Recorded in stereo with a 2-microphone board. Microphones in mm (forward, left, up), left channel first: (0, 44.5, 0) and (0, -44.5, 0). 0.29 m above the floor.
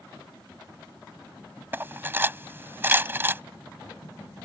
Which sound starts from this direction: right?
Cutlery clinking, at 1.7 s.